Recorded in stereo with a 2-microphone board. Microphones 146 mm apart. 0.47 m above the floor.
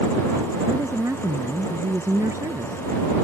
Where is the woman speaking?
20° right (ahead or behind).